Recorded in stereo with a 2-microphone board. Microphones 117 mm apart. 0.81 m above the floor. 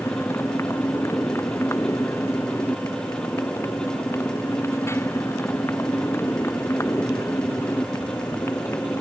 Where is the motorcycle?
25° left (ahead or behind).